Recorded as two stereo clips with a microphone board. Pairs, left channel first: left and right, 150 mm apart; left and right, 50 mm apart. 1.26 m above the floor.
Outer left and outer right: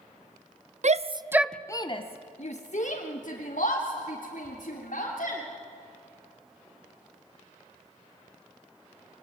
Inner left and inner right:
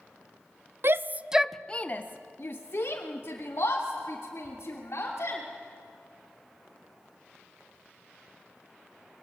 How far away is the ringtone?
No ringtone in this recording.